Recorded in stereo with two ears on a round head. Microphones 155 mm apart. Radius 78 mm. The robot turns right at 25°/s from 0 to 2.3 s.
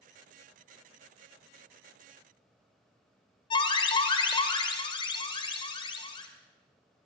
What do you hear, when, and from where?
3.5 s an alarm: 30° left (ahead or behind), 2.5 m